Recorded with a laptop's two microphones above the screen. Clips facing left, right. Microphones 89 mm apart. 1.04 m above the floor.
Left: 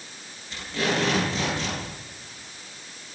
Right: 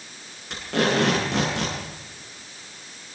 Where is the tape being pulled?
85° right, 9 m.